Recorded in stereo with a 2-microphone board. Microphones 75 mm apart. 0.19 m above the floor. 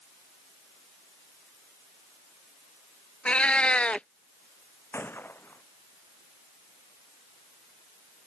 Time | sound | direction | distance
3.2 | a cat meowing | 15° left (ahead or behind) | ?
4.9 | a gunshot | 30° left (ahead or behind) | ?